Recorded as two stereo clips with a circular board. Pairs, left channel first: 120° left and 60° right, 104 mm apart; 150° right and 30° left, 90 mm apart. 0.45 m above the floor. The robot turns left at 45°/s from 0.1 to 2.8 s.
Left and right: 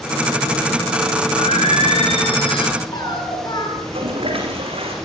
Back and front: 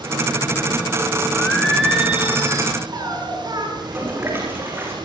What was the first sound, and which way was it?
Singing, 140° left.